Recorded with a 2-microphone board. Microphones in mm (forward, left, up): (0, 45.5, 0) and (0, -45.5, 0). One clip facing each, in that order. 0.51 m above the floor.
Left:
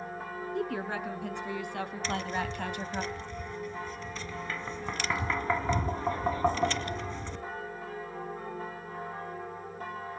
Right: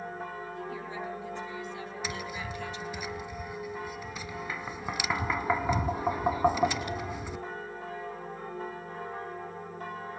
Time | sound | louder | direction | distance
0.6 | a woman speaking | left 8 dB | 70° left (ahead or behind) | 5.5 m
2.0 | tapping | left 5 dB | 10° right (ahead or behind) | 1.9 m